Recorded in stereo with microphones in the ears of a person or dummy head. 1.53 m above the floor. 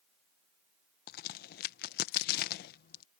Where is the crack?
45° left (ahead or behind).